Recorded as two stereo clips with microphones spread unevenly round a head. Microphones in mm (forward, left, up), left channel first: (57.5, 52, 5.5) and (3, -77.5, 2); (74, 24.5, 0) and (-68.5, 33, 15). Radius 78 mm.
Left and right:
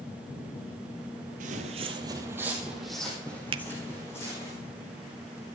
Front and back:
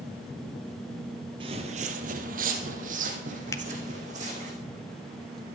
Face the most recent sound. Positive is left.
turn(degrees=-65)